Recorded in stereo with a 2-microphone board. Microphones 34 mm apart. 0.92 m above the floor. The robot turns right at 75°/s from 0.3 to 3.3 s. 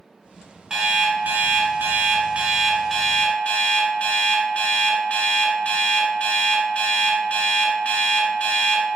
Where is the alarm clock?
160° right, 1.3 m; by 8.8 s 35° left, 1.3 m.